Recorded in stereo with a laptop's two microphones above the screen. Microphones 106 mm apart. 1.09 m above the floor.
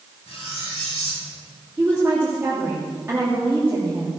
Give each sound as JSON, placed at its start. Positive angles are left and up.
{"t": 0.3, "sound": "cutlery clinking", "side_deg": 85, "distance_m": 5.5}
{"t": 1.8, "sound": "a woman speaking", "side_deg": -20, "distance_m": 2.5}